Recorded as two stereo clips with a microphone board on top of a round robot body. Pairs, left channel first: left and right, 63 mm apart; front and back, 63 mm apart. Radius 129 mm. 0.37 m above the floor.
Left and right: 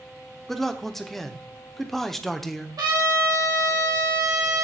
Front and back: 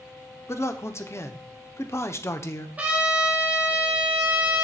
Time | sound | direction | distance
0.5 | a man speaking | 5° left | 1.2 m
2.8 | a trumpet | 110° right | 2.5 m